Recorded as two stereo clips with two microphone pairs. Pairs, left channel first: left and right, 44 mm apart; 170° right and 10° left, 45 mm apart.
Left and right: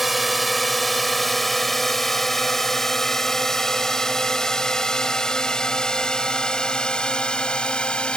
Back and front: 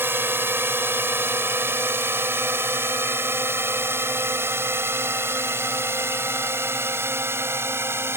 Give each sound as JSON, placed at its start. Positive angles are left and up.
{"t": 0.0, "sound": "a drone", "azimuth_deg": 0}